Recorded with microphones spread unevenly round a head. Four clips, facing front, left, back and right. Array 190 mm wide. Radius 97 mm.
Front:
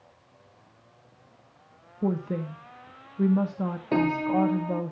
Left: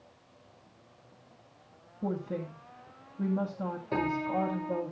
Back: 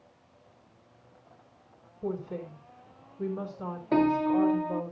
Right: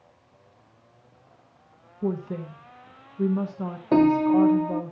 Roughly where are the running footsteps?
No running footsteps in this recording.